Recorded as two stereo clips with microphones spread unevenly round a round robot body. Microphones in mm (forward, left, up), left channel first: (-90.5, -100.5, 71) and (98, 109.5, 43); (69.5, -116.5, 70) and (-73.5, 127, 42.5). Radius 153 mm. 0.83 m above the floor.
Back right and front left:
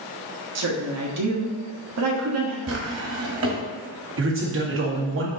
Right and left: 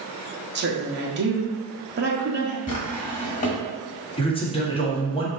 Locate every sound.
0.6 s a woman speaking: 70° left, 1.4 m
2.7 s a drawer: 5° left, 1.6 m
4.2 s a man speaking: 15° left, 1.8 m